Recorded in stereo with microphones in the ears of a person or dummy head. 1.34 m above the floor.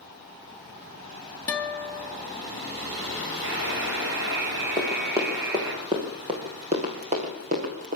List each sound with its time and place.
1.5 s a guitar: 15° left (ahead or behind), 2 m
3.4 s a buzzer: 65° right (ahead or behind), 6 m
4.8 s running footsteps: 10° right (ahead or behind), 4.5 m; by 8.0 s 45° right (ahead or behind), 5 m